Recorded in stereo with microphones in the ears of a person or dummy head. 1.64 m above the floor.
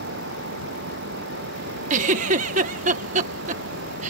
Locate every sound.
0.0 s a fan: 75° right (ahead or behind)
1.9 s a giggle: 45° right (ahead or behind)